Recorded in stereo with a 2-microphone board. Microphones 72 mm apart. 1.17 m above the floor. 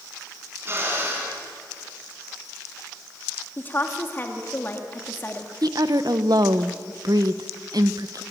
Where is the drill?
35° right (ahead or behind), 7.5 m.